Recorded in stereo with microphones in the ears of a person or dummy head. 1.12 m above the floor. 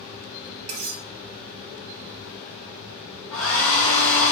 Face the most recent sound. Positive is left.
turn(degrees=5)  # may be behind; listen again after turning